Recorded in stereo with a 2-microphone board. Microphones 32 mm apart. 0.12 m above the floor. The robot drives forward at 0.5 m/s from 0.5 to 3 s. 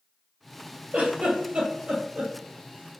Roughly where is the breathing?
No breathing in this recording.